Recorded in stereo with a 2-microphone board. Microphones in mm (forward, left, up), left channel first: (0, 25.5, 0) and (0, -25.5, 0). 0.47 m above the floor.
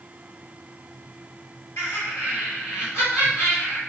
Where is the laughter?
55° left (ahead or behind), 1.3 m.